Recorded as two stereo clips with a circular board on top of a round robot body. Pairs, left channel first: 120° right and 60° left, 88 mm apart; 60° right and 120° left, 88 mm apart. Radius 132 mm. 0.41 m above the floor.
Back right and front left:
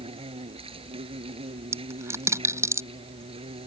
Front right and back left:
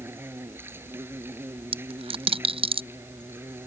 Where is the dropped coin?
120° left.